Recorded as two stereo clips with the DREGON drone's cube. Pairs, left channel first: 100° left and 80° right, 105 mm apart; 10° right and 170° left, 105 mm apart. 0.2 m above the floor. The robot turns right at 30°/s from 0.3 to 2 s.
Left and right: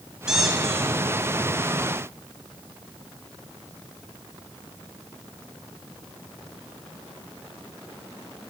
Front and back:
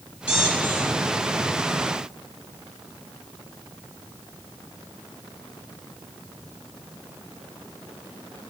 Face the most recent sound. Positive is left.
turn(degrees=55)